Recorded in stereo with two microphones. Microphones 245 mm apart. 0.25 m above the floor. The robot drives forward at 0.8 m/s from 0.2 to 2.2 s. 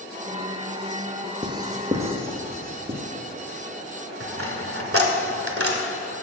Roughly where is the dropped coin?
Right.